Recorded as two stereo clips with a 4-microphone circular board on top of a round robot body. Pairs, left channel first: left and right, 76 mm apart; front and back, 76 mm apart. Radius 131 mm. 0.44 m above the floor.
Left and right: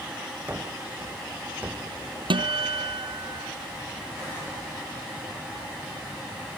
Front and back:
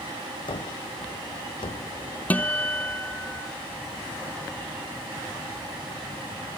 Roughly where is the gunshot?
Ahead.